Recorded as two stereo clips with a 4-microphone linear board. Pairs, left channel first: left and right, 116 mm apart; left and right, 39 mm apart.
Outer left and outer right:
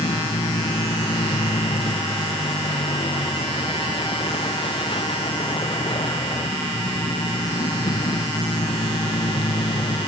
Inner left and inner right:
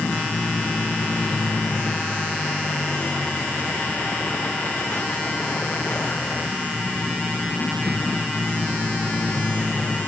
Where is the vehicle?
50° left (ahead or behind).